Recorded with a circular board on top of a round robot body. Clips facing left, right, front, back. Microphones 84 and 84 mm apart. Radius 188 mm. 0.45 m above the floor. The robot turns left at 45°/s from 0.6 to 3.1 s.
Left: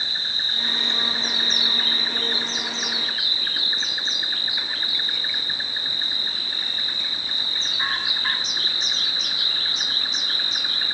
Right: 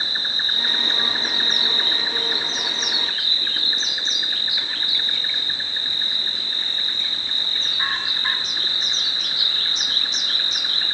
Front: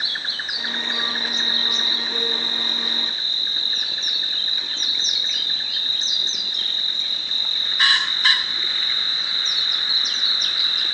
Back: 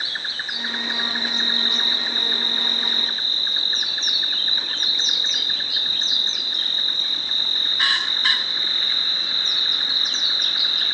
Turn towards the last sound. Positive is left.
turn(degrees=160)